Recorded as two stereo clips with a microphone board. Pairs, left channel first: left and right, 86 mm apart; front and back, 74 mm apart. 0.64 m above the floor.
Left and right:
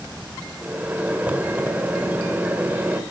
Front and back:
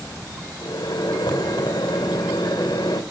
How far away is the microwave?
About 1.8 m.